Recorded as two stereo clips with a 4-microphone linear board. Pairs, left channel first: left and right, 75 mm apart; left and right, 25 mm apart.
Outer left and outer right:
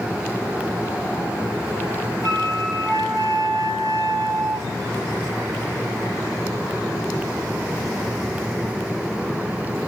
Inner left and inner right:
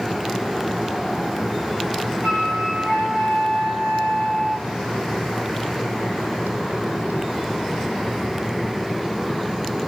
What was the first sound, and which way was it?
A flute, 55° right (ahead or behind).